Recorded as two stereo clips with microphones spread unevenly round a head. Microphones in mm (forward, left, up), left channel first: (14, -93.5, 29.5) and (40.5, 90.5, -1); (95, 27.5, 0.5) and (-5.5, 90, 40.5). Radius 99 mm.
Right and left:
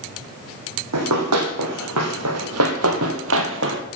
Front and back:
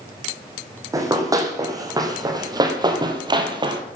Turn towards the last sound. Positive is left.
turn(degrees=120)